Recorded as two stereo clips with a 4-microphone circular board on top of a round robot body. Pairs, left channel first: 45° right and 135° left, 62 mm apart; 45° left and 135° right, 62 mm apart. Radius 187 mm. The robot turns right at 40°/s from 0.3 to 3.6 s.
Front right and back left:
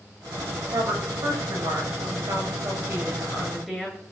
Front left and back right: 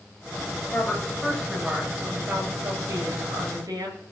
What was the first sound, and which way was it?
A woman speaking, 110° left.